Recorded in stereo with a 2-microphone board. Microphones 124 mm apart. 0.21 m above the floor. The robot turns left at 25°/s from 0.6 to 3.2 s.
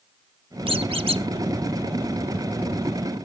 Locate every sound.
0.7 s a squeak: 45° right (ahead or behind), 0.5 m